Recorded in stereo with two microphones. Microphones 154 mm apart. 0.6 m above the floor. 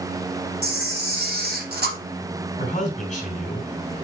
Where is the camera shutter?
75° right (ahead or behind), 2.5 m.